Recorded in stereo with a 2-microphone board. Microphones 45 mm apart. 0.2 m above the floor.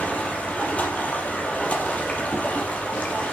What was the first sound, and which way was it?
Running water, 30° left (ahead or behind).